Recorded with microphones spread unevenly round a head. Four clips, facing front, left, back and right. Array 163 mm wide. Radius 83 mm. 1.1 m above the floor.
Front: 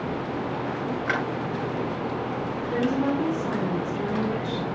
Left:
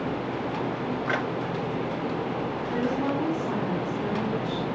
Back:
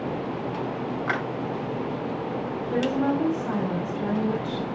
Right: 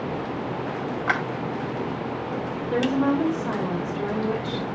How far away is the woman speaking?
About 4 m.